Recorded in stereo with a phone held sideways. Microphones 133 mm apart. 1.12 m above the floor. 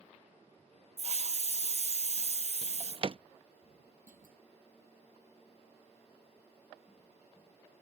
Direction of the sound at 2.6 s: 40° right (ahead or behind).